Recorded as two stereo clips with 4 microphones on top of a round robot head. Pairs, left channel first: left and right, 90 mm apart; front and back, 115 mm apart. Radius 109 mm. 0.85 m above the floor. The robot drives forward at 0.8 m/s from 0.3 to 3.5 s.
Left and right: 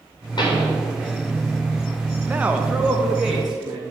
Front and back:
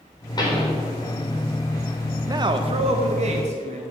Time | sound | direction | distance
0.4 | a pop | 55° left | 4 m
2.3 | a man speaking | 150° right | 0.6 m